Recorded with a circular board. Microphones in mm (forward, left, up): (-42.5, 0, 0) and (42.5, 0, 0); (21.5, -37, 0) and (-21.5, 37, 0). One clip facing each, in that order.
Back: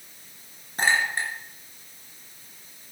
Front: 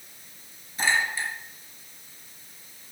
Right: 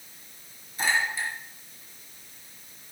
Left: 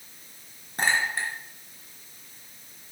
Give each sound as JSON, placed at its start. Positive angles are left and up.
{"t": 0.8, "sound": "a clink", "azimuth_deg": 145, "distance_m": 4.0}